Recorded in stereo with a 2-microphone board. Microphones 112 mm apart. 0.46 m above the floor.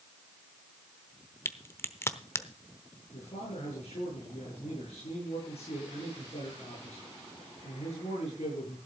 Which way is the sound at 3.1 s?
70° left (ahead or behind).